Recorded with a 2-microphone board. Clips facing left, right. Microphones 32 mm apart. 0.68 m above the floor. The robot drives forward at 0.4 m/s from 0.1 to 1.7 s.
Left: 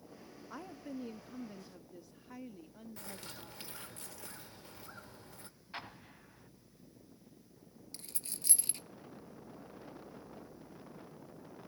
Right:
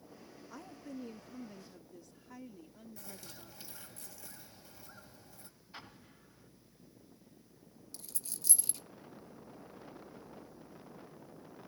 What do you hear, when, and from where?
0.5 s a woman speaking: 25° left (ahead or behind), 0.7 m; by 3.9 s 20° left (ahead or behind), 0.9 m
3.0 s a bird: 55° left (ahead or behind), 1.2 m
5.7 s an explosion: 55° left (ahead or behind), 1.2 m
7.9 s a dropped coin: 50° left (ahead or behind), 1.2 m